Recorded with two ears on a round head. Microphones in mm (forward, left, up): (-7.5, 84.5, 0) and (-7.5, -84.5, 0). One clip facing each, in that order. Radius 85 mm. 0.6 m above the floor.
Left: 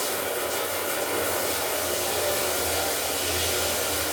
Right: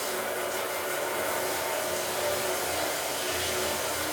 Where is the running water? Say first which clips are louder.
Left 3 dB; 45° left (ahead or behind), 1.7 m.